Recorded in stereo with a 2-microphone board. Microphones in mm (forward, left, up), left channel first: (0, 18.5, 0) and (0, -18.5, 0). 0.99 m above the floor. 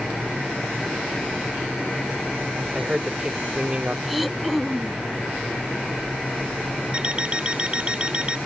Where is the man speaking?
20° right (ahead or behind); by 4.0 s 40° right (ahead or behind).